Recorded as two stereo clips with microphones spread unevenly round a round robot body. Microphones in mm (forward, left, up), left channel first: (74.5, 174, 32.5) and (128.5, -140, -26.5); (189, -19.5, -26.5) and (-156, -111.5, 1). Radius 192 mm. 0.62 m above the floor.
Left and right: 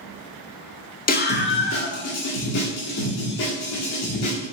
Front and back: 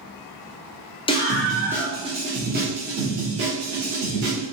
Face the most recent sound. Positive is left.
turn(degrees=145)